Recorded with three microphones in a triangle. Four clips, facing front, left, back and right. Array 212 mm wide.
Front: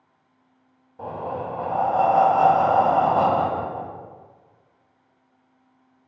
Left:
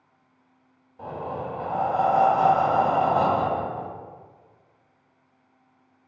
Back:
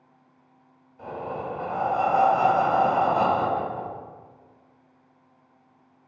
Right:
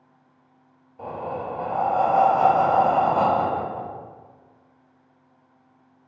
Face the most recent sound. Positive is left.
turn(degrees=-25)